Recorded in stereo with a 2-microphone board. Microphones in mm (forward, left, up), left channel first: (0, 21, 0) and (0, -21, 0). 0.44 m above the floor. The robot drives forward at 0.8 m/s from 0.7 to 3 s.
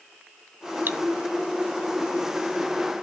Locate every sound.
0.9 s cutlery clinking: 60° right (ahead or behind), 0.5 m; by 1.0 s 55° right (ahead or behind), 0.6 m